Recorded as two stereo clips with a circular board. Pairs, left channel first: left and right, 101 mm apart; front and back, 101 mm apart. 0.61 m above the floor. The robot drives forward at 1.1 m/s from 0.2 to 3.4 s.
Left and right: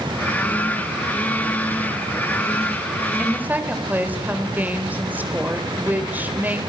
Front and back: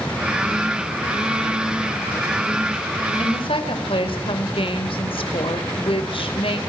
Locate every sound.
3.2 s a woman speaking: 15° right, 3 m; by 6.6 s 20° right, 3 m